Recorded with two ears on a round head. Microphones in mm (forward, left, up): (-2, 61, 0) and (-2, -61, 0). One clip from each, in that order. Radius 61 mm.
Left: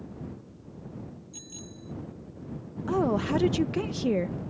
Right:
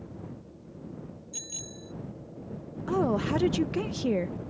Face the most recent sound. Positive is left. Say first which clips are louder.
# left 1 dB
turn(degrees=-5)  # may be behind; listen again after turning